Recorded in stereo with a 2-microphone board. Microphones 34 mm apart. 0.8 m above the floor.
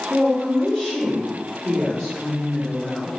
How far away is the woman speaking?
About 1.5 m.